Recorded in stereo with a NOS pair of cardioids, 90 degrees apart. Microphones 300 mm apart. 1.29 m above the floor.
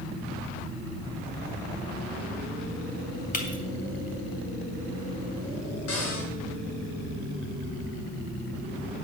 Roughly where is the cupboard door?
Ahead left.